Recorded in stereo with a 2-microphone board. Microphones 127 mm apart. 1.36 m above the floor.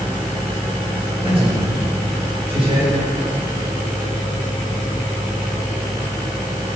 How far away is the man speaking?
About 7 m.